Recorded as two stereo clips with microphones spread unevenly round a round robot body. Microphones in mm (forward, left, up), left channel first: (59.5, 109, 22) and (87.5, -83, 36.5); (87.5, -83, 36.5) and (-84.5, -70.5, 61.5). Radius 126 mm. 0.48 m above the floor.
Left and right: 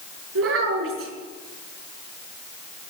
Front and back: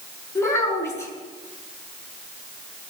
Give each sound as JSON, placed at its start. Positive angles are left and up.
{"t": 0.3, "sound": "a child speaking", "azimuth_deg": -80, "distance_m": 5.5}